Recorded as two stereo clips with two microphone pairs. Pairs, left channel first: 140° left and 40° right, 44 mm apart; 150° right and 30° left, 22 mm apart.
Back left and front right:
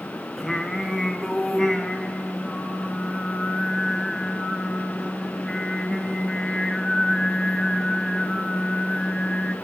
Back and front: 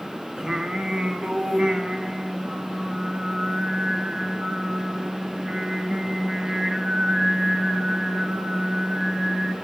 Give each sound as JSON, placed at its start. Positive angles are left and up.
{"t": 0.4, "sound": "singing", "azimuth_deg": 60, "distance_m": 0.9}